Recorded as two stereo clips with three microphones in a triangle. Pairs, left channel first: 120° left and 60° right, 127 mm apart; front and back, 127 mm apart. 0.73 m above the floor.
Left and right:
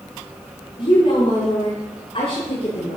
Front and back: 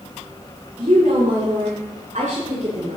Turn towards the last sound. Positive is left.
turn(degrees=150)